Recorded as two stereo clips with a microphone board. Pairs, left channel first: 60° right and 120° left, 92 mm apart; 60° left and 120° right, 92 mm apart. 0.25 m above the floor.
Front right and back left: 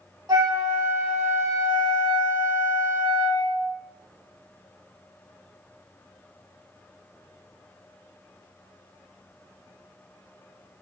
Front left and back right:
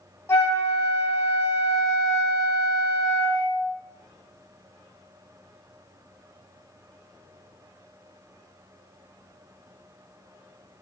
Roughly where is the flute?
Left.